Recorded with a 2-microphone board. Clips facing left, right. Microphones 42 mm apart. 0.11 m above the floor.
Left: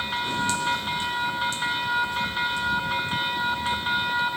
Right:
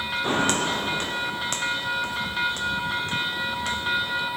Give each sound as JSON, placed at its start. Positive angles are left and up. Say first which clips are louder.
{"t": 0.2, "sound": "footsteps", "louder": "right 3 dB", "side_deg": -50}